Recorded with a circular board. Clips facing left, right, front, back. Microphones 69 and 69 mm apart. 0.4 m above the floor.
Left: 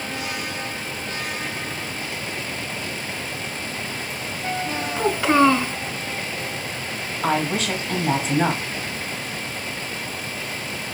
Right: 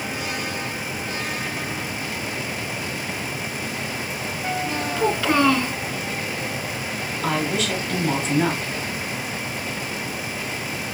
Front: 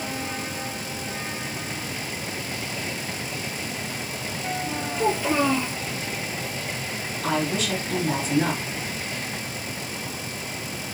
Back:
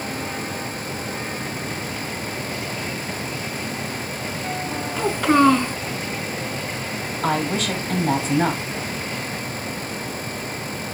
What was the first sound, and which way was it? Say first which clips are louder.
A child speaking: left 3 dB, back 6 dB; 155° left.